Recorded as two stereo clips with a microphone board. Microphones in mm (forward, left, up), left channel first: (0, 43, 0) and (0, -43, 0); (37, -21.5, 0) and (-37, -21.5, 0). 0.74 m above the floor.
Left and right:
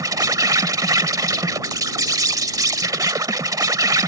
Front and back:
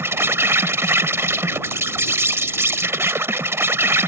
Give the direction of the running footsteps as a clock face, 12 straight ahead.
I don't hear running footsteps.